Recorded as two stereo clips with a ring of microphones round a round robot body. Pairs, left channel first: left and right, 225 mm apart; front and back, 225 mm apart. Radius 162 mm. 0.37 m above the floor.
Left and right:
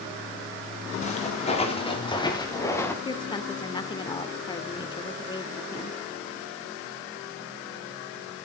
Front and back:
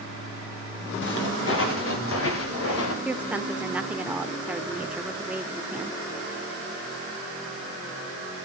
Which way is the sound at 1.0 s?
30° left.